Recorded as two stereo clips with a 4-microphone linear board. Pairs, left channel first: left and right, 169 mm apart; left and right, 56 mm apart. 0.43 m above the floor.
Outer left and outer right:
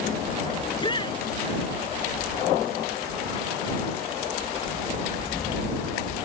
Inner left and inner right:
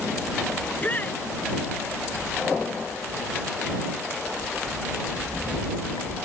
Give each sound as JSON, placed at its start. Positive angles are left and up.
{"t": 0.6, "sound": "a shout", "side_deg": 30}